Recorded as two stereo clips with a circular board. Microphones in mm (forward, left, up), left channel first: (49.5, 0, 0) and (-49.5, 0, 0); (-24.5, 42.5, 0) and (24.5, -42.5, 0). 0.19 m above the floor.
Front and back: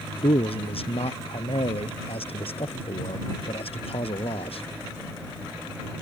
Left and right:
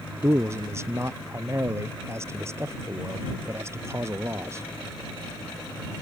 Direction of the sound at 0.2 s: Straight ahead.